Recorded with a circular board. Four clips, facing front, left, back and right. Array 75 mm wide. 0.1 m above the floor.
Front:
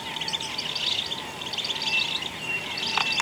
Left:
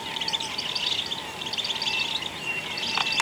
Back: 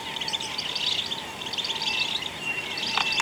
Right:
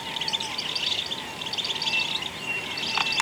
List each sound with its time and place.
Only background noise.